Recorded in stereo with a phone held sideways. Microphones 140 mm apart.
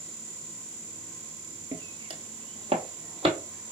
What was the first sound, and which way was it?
Footsteps, 30° right (ahead or behind).